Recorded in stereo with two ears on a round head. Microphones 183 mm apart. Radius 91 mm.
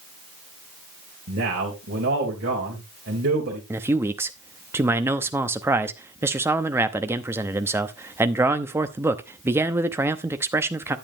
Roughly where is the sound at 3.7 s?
Centre.